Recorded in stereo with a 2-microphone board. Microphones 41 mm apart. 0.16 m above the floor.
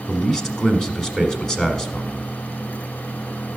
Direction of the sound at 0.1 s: 15° left (ahead or behind).